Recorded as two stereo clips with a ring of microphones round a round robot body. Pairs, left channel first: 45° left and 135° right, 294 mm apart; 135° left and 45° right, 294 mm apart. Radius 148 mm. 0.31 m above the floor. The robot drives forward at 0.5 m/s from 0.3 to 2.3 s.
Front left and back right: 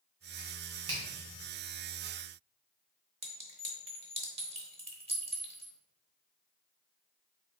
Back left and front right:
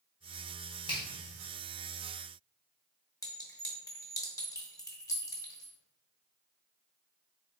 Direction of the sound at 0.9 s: 160° right.